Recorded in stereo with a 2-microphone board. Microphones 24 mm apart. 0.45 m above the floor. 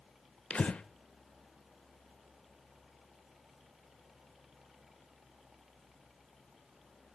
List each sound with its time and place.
0.5 s breathing: 55° left (ahead or behind), 0.6 m